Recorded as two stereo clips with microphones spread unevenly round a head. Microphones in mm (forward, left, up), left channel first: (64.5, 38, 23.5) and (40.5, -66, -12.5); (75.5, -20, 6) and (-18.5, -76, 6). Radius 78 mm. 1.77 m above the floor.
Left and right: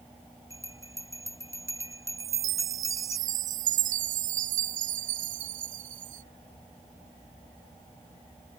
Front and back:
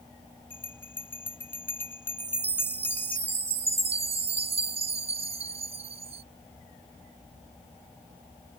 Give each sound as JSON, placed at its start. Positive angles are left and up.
{"t": 0.5, "sound": "a bell", "azimuth_deg": -40}
{"t": 2.2, "sound": "a chime", "azimuth_deg": -125}